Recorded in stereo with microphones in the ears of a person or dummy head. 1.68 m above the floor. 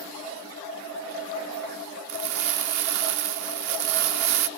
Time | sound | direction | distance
2.1 | crumpling | 65° right (ahead or behind) | 0.7 m